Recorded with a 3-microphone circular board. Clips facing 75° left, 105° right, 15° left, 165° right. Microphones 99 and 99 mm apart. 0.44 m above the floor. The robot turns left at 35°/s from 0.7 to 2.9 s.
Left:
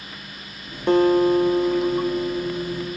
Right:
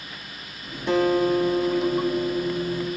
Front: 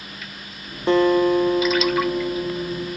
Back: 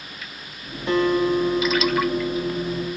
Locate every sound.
0.9 s a guitar: 60° left, 0.8 m; by 3.0 s 10° right, 0.8 m